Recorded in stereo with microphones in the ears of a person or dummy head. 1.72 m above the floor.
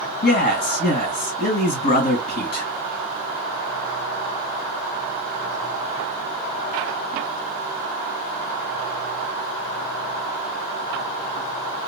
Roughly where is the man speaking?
Left.